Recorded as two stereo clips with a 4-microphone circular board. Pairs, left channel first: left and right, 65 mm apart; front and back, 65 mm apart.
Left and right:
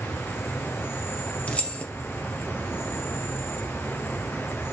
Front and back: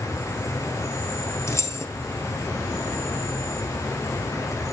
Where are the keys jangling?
25° left, 1.8 m.